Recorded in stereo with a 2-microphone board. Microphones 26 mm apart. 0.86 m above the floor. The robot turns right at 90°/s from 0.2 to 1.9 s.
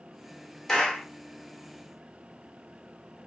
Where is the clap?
15° left, 1.0 m; by 1.1 s 50° left, 1.0 m.